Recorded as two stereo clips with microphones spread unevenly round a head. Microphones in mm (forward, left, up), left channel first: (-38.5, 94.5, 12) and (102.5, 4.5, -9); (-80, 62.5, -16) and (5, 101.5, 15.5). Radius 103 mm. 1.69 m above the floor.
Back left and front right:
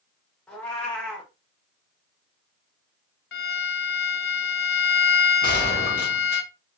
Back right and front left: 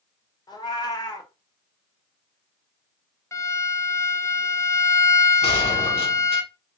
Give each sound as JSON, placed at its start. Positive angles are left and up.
{"t": 0.5, "sound": "a cat meowing", "azimuth_deg": -160, "distance_m": 0.9}
{"t": 3.3, "sound": "a violin", "azimuth_deg": 140, "distance_m": 0.6}
{"t": 5.4, "sound": "a gunshot", "azimuth_deg": -170, "distance_m": 1.5}